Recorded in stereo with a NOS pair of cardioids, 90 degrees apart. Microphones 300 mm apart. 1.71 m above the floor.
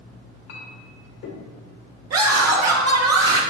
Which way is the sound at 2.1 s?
60° right.